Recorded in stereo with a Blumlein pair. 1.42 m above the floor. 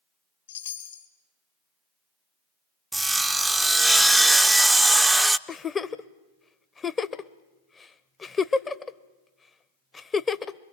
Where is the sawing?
5° right, 0.6 m.